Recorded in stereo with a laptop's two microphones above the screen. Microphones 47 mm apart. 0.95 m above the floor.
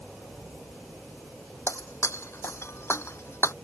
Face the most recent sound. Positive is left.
turn(degrees=70)  # may be behind; listen again after turning